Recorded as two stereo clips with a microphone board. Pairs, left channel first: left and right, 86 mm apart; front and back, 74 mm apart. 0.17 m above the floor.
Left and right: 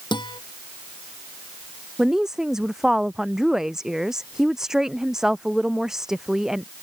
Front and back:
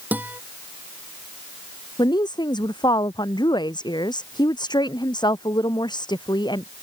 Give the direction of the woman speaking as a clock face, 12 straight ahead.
12 o'clock.